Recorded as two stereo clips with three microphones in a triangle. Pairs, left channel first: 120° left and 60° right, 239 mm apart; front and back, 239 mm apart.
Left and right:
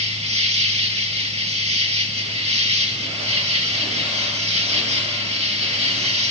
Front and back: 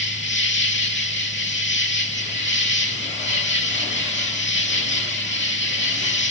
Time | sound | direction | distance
0.0 | an insect | 5° right | 2 m